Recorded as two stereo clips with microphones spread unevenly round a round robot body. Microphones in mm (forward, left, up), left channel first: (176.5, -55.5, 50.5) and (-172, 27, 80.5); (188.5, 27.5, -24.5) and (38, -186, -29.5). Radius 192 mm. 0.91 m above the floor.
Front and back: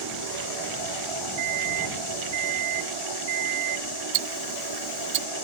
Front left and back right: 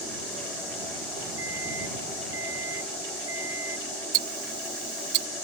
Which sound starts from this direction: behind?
A microwave, at 1.4 s.